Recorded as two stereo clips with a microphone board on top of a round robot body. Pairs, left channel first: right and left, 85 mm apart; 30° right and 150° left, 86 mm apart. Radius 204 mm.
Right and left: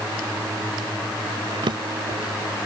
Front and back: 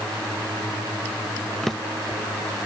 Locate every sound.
1.6 s a drawer: 55° left